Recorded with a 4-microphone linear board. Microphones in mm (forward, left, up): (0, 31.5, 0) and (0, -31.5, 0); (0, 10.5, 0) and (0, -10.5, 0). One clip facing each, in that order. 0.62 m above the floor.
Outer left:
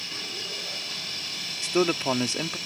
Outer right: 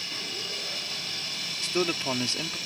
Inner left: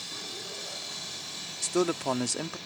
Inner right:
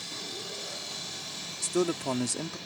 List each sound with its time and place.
1.6 s a man speaking: 20° left (ahead or behind)